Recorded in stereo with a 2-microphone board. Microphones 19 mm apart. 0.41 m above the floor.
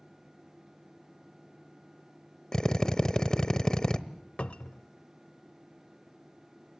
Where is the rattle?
No rattle in this recording.